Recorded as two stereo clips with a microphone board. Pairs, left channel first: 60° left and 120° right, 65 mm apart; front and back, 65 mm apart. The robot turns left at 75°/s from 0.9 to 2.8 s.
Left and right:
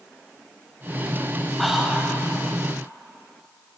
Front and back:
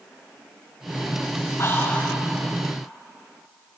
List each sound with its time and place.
1.6 s whispering: 25° right, 2.5 m; by 2.2 s 70° right, 2.5 m